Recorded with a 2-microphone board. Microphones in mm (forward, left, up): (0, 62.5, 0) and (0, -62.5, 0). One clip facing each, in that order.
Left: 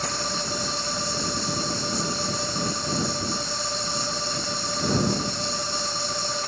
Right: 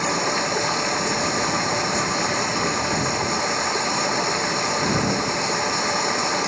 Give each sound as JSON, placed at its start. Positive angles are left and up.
{"t": 0.0, "sound": "running water", "side_deg": -70}